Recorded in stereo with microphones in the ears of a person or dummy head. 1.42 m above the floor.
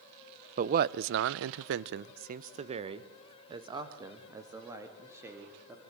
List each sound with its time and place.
0.6 s a man speaking: 45° right (ahead or behind), 0.8 m; by 5.8 s 15° right (ahead or behind), 2.5 m